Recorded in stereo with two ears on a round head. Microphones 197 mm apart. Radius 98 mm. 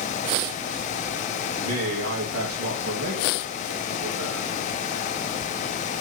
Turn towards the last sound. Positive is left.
turn(degrees=-60)  # may be behind; listen again after turning